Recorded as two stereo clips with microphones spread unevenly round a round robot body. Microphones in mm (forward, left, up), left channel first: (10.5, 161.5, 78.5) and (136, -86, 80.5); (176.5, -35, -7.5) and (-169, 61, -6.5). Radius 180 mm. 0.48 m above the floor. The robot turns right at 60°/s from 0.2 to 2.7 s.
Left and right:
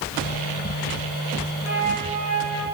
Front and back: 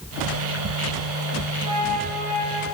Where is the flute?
25° left, 6 m; by 2.6 s 85° left, 6 m.